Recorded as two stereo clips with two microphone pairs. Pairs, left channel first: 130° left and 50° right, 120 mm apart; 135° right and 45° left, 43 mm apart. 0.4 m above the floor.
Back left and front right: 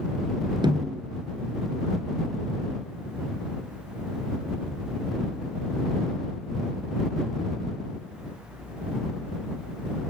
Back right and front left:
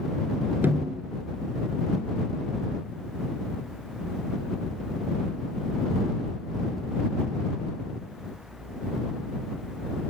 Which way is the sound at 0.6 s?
5° left.